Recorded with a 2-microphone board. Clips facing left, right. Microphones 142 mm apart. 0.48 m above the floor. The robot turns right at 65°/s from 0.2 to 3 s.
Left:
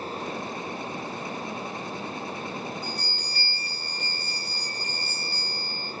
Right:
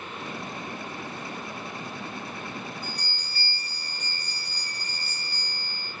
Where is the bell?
50° right (ahead or behind), 1.5 m; by 5.9 s 45° right (ahead or behind), 1.5 m.